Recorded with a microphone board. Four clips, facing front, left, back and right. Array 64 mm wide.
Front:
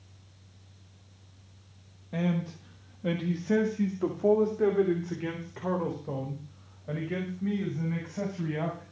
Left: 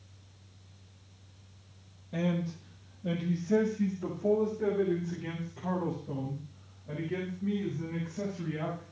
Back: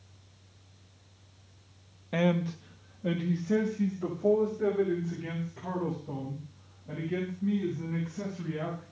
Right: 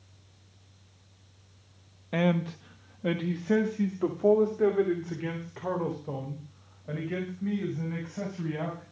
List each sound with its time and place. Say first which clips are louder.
2.1 s a man speaking: right 5 dB, back 3 dB; 120° right, 1.3 m; by 8.8 s 40° right, 7.5 m